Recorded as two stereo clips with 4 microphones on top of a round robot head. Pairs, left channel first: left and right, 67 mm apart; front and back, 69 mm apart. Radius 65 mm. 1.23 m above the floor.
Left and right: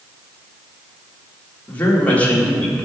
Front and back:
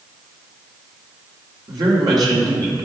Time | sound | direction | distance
1.7 | a woman speaking | 155° left | 3 m